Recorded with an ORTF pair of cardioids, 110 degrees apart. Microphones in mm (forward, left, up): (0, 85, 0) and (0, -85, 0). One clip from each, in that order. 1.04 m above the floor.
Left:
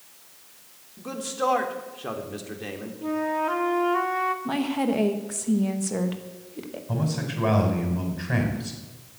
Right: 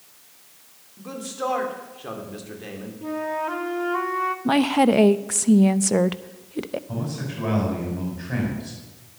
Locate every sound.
1.0 s a man speaking: 15° left, 2.5 m
3.0 s a flute: 5° left, 1.0 m
4.5 s a woman speaking: 45° right, 0.7 m
6.9 s a man speaking: 30° left, 5 m